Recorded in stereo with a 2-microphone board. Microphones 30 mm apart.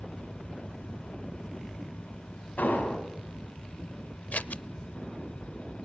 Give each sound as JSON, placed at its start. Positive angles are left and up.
{"t": 2.6, "sound": "an explosion", "side_deg": 70, "distance_m": 4.5}
{"t": 4.3, "sound": "scissors", "side_deg": 65, "distance_m": 0.6}